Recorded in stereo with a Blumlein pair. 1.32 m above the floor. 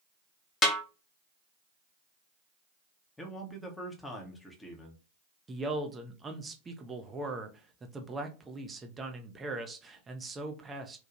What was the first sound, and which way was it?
A snare drum, 25° left.